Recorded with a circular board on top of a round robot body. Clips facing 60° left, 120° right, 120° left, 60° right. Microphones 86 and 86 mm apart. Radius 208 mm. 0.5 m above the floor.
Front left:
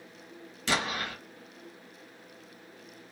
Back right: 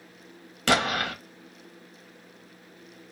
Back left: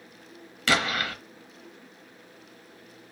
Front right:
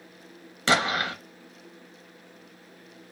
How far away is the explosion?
About 1.0 m.